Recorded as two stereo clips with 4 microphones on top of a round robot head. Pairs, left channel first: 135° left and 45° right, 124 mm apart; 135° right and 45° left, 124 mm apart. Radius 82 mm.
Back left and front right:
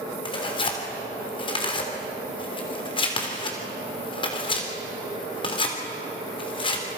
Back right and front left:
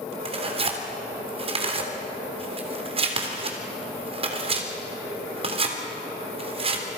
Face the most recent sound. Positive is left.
turn(degrees=85)